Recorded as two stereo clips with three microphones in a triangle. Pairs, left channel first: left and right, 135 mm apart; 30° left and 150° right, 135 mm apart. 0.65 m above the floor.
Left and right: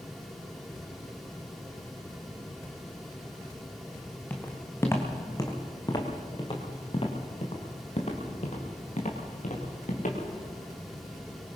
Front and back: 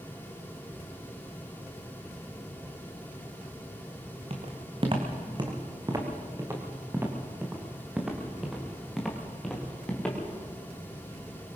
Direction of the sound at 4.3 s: 170° left.